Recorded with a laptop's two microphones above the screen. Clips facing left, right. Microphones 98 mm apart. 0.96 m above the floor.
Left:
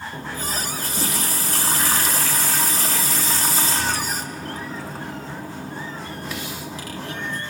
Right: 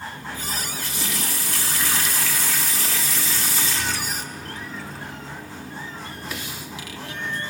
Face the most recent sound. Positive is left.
turn(degrees=40)  # may be behind; listen again after turning